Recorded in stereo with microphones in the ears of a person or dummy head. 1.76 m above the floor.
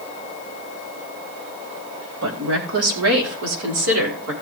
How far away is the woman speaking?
About 4 m.